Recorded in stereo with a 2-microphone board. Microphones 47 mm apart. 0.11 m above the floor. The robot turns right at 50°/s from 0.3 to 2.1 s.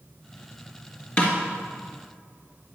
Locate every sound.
1.2 s a snare drum: 25° left (ahead or behind), 2 m; by 1.3 s 30° left (ahead or behind), 2 m